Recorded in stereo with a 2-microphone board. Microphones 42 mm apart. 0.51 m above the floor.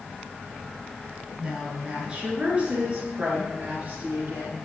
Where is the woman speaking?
15° right (ahead or behind), 6.5 m; by 4.5 s 40° right (ahead or behind), 7.5 m.